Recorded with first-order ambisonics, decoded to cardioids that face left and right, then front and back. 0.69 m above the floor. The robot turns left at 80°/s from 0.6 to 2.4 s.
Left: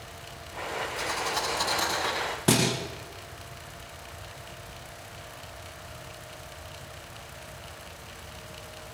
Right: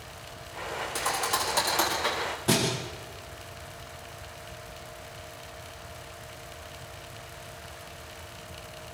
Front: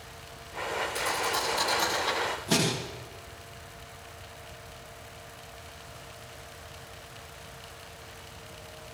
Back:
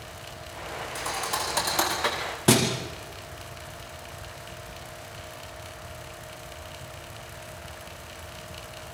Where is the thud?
90° right, 9 m; by 2.7 s 155° left, 9 m.